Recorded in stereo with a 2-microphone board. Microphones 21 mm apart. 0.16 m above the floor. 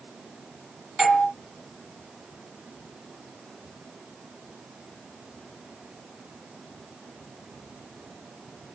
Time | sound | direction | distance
1.0 | a doorbell | 25° right (ahead or behind) | 1.5 m